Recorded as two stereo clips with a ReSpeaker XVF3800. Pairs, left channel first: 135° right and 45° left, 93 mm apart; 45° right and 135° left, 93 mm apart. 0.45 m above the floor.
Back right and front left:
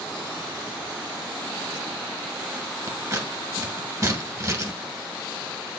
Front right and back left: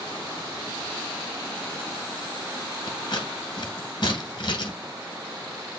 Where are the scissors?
10° right, 1.6 m.